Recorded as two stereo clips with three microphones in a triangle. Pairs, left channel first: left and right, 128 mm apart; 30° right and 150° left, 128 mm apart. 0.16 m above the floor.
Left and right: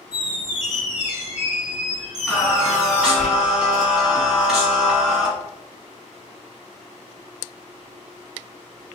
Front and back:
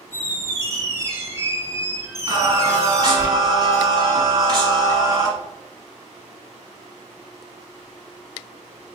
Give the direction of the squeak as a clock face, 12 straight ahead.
5 o'clock.